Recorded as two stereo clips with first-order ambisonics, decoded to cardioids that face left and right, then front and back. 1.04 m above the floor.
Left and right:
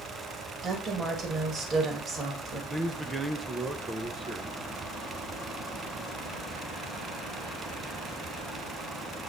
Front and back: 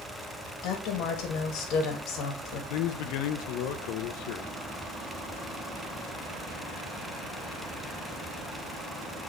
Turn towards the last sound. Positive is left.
turn(degrees=-15)